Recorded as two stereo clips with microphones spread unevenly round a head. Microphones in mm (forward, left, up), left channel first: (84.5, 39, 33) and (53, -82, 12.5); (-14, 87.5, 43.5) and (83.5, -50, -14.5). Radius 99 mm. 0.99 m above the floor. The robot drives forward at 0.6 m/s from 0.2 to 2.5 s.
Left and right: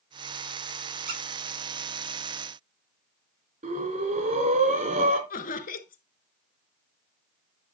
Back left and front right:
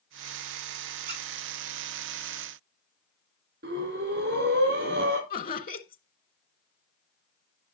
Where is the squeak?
110° right, 8 m.